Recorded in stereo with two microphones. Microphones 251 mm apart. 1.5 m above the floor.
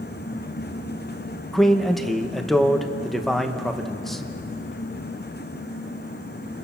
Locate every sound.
1.5 s a man speaking: centre (ahead or behind), 1.2 m